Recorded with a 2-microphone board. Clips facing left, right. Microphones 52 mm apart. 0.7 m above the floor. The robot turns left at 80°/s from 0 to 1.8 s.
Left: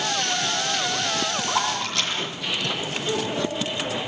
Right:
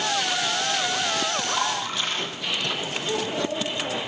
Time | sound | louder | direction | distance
1.5 | a splash | left 1 dB | 75° left (ahead or behind) | 6.5 m
3.1 | a child speaking | left 1 dB | 55° left (ahead or behind) | 7.5 m